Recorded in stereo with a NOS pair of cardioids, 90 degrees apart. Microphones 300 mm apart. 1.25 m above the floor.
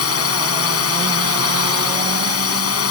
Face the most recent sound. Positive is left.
turn(degrees=50)